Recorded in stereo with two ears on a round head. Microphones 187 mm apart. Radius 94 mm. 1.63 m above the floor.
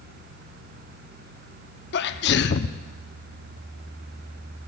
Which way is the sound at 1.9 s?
55° left (ahead or behind).